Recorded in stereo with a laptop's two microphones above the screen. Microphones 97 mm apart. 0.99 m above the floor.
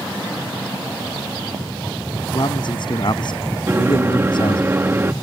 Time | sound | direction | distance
2.3 | a man speaking | 50° left (ahead or behind) | ?
3.7 | a microwave | 25° right (ahead or behind) | ?